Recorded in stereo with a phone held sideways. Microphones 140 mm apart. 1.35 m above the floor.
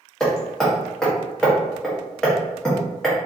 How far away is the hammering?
About 0.8 m.